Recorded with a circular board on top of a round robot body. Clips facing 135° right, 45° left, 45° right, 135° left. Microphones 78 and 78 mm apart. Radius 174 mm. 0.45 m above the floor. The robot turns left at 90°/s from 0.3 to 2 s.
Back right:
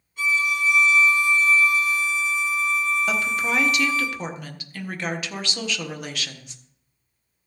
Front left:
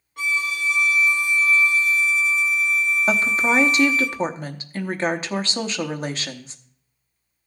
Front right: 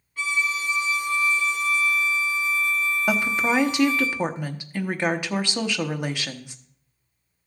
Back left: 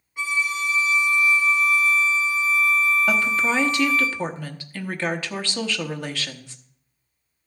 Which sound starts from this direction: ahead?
A woman speaking, at 3.1 s.